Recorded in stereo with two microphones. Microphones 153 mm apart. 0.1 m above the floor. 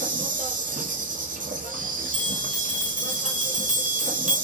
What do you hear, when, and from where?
0.0 s an insect: 65° right (ahead or behind), 0.8 m
2.1 s a bell: 50° right (ahead or behind), 1.9 m